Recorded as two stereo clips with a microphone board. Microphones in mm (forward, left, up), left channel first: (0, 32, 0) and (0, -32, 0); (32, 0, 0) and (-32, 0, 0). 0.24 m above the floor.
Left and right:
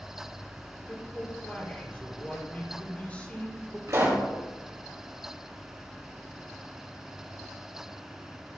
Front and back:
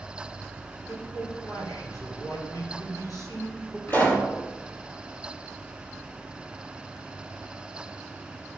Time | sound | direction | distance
0.9 | a man speaking | 20° left | 4.5 m
3.9 | a pop | 55° right | 5.5 m